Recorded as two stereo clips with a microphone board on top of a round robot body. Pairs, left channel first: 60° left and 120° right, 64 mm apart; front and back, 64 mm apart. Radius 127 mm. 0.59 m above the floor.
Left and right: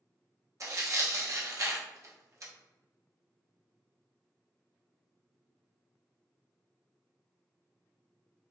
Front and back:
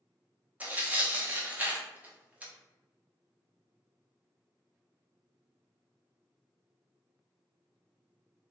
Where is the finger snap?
No finger snap in this recording.